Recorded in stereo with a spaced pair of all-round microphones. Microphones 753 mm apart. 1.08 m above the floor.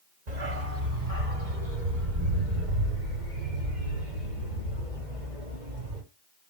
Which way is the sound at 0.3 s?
60° right (ahead or behind).